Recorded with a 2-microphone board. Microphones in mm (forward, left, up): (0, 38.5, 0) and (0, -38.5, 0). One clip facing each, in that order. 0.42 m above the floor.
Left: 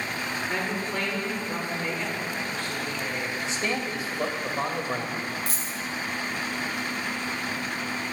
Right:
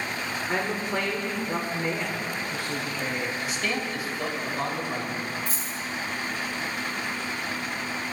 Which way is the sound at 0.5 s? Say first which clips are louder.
Right 4 dB; 15° right (ahead or behind).